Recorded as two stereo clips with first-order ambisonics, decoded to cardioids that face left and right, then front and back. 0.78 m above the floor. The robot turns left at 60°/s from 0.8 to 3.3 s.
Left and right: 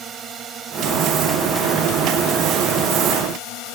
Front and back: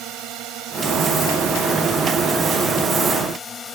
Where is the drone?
145° right; by 3.8 s 65° left.